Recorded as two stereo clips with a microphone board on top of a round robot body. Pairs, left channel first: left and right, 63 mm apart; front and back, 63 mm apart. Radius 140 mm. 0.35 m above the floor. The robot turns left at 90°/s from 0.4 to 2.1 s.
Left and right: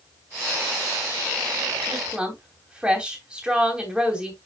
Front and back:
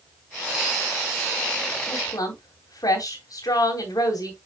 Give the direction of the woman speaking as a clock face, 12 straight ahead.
12 o'clock.